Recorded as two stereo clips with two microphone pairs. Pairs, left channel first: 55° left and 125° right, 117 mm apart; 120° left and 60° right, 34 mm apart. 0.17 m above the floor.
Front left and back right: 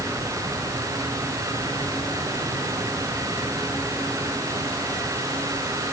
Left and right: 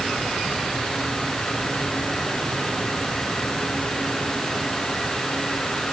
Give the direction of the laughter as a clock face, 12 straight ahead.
I don't hear laughter.